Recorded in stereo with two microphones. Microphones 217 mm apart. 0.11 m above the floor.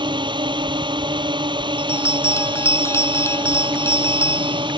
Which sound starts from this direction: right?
A drone, at 0.0 s.